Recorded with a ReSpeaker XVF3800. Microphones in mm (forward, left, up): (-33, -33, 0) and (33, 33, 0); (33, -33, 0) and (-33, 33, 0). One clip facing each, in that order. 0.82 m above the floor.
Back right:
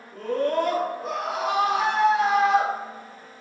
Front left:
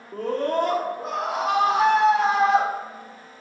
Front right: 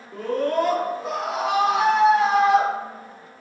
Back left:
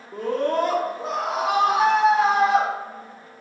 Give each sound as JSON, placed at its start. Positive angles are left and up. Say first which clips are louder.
{"t": 0.1, "sound": "a scream", "louder": "even, even", "azimuth_deg": 65, "distance_m": 2.0}